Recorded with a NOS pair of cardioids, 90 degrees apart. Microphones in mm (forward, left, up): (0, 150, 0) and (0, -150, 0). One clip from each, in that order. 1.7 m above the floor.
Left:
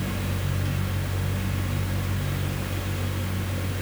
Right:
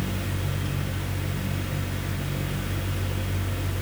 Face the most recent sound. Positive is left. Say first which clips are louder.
# even
turn(degrees=25)